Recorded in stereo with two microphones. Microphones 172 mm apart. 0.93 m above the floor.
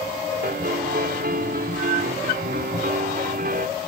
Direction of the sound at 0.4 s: 60° right (ahead or behind).